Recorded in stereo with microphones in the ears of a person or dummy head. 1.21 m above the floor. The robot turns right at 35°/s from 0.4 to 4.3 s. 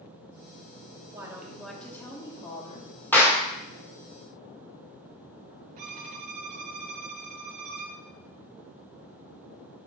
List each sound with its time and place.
1.1 s a woman speaking: 15° right, 1.9 m; by 2.9 s 50° left, 1.9 m
3.1 s a clap: 10° left (ahead or behind), 1.4 m; by 3.5 s centre (ahead or behind), 1.4 m
5.8 s a violin: 40° right (ahead or behind), 1.4 m